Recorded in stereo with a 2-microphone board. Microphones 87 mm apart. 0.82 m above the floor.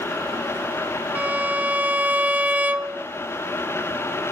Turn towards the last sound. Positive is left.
turn(degrees=-20)  # may be behind; listen again after turning